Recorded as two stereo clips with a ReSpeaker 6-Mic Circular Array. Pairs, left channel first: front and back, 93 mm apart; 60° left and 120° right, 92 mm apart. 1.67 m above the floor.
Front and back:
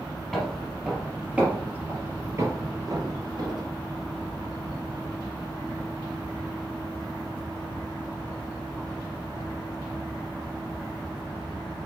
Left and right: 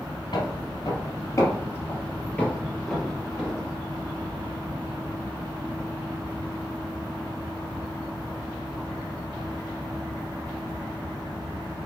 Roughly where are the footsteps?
Left.